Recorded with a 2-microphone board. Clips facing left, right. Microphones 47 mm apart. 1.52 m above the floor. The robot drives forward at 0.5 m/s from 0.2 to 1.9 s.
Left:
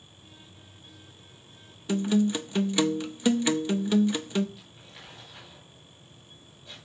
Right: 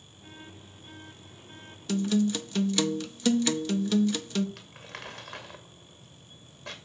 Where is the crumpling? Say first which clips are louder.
Right 6 dB; 70° right (ahead or behind), 2 m.